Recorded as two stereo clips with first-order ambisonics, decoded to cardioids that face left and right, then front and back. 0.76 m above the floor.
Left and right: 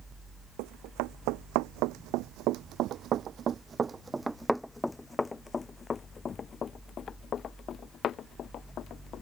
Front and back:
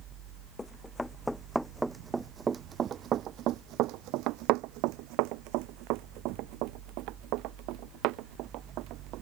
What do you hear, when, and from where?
0.6 s running footsteps: 80° right; by 9.2 s 145° left